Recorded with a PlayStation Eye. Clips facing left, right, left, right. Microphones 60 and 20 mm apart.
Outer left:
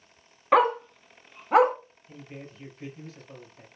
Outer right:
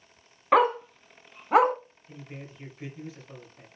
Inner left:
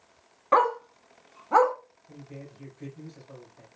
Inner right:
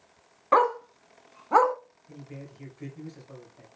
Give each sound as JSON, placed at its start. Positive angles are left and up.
{"t": 0.5, "sound": "a dog barking", "side_deg": 0, "distance_m": 0.6}
{"t": 2.1, "sound": "a man speaking", "side_deg": -20, "distance_m": 3.0}